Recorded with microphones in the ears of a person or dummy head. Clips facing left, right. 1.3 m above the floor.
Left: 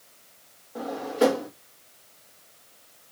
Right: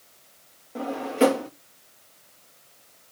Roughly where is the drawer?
Right.